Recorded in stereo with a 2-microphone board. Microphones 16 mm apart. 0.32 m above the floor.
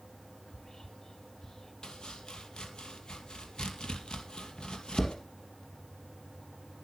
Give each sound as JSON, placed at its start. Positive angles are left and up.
{"t": 0.5, "sound": "whispering", "side_deg": 30, "distance_m": 1.5}
{"t": 1.8, "sound": "chopping", "side_deg": 55, "distance_m": 2.0}